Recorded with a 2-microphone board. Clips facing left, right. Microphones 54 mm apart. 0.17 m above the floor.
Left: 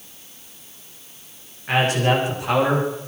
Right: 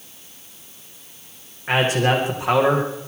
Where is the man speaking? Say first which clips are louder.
Right 1 dB; 25° right (ahead or behind), 9 m; by 3.1 s 30° right (ahead or behind), 8.5 m.